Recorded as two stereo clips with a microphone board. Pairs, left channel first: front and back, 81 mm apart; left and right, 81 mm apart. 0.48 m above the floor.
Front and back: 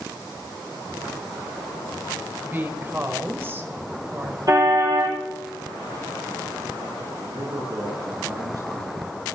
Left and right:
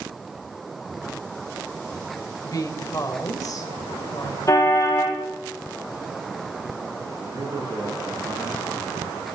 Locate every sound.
2.4 s a woman speaking: 125° left, 2.5 m
4.5 s a car horn: 140° left, 10 m
7.2 s a man speaking: 140° right, 7.5 m